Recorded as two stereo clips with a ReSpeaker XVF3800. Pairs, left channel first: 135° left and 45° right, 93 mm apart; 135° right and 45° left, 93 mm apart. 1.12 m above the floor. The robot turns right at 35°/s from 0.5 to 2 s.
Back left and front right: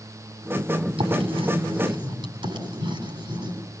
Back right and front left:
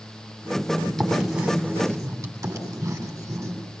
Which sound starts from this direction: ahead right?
Writing, at 1.0 s.